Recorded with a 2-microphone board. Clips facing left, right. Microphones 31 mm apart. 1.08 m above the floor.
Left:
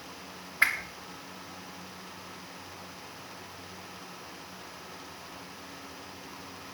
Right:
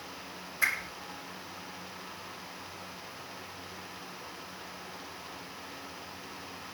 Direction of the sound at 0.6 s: 40° left (ahead or behind).